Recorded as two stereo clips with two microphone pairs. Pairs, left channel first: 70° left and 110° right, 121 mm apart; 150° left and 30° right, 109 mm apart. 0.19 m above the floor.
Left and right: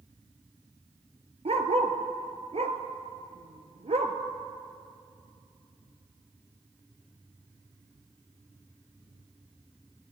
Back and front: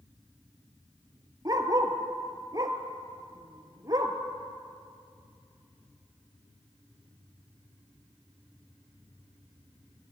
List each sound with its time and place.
1.4 s a dog barking: 85° right, 1.0 m